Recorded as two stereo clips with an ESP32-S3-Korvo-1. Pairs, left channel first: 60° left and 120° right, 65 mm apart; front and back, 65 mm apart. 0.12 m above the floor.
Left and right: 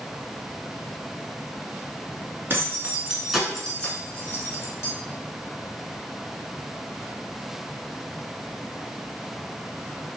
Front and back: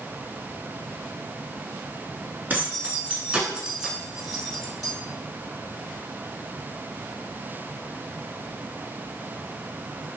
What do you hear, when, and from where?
2.5 s keys jangling: 140° right, 1.0 m; by 4.9 s 85° left, 1.2 m